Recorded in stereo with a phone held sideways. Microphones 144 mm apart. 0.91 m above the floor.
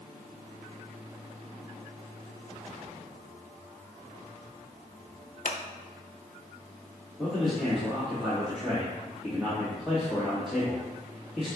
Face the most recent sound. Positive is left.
turn(degrees=0)  # may be behind; listen again after turning